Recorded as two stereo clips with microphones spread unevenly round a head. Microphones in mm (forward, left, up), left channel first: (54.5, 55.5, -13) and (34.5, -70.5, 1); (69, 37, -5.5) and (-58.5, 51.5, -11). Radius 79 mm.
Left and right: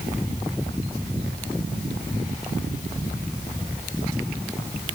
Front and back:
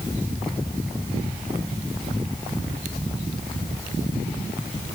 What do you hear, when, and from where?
Only background noise.